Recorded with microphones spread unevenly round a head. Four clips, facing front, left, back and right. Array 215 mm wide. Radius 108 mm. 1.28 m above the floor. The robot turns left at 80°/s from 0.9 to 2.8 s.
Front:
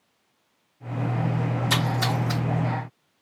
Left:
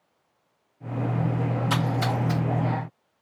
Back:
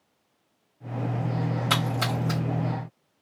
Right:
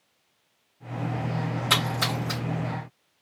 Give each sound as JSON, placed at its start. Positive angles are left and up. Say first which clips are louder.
{"t": 1.7, "sound": "a splash", "louder": "even, front 2 dB", "azimuth_deg": -150, "distance_m": 1.4}